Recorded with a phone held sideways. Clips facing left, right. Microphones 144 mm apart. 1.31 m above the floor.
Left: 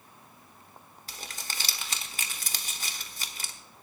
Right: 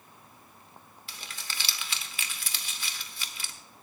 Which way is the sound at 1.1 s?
40° left (ahead or behind).